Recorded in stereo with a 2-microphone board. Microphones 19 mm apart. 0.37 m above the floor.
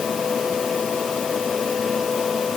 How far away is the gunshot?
No gunshot in this recording.